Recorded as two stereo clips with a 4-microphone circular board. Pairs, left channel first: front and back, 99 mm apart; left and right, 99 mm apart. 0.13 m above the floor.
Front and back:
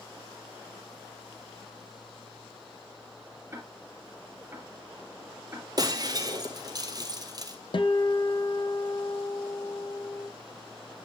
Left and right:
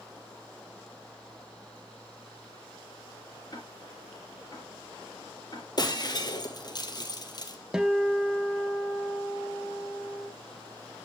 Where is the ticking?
120° left, 2 m.